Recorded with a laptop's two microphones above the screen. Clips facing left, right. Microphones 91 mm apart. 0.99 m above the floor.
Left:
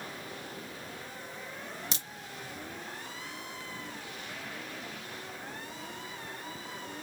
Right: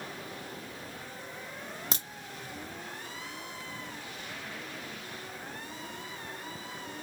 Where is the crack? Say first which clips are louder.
Right 3 dB; 50° right (ahead or behind), 1.2 m.